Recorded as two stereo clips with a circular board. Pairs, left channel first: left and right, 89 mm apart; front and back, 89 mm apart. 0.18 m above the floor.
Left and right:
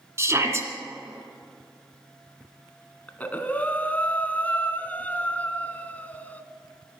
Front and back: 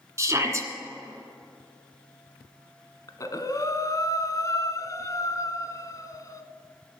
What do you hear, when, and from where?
0.2 s a shout: 135° right, 2.0 m
3.1 s breathing: 25° left, 0.9 m